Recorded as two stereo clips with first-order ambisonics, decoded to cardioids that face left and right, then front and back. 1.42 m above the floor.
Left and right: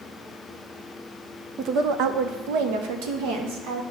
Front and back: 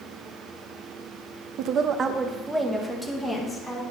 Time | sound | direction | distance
1.6 | a woman speaking | 145° right | 0.5 m